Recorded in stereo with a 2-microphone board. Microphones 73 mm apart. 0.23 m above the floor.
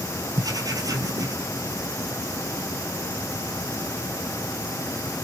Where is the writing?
55° right (ahead or behind), 0.8 m.